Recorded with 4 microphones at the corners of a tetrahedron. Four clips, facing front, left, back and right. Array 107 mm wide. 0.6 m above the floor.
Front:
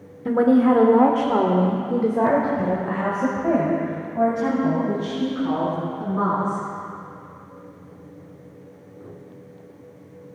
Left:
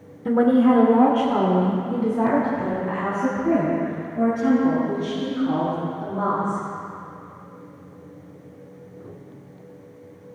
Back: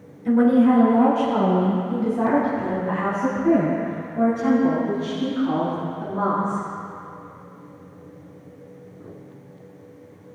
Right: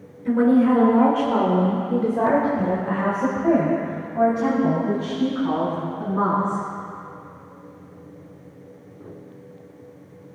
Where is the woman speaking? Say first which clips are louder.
Even, even; 40° left, 1.8 m; by 6.6 s 60° right, 6.5 m.